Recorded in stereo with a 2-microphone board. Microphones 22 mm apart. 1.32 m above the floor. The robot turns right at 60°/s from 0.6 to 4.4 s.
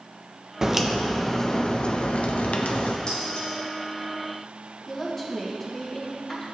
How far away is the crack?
About 0.9 m.